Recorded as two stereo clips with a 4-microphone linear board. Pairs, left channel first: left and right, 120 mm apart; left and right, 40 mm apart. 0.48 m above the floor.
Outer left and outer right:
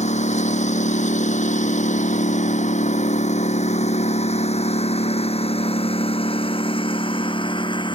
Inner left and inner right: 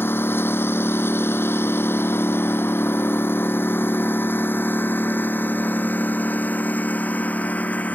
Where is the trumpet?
No trumpet in this recording.